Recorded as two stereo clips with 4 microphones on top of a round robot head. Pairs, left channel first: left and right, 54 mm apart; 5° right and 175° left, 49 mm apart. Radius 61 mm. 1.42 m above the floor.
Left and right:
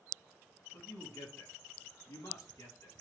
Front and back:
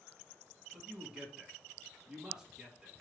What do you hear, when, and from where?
0.7 s a man speaking: 100° left, 3.5 m